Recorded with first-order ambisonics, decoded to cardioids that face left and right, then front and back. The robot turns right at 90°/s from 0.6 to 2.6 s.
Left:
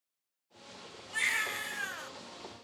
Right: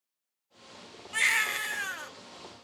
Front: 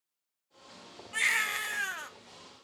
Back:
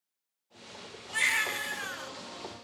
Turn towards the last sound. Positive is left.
turn(degrees=35)